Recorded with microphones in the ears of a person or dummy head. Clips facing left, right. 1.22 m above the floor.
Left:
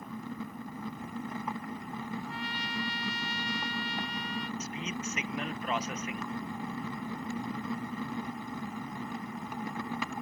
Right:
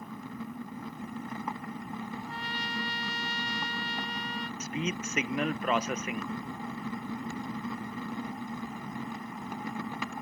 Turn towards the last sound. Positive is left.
turn(degrees=-55)  # may be behind; listen again after turning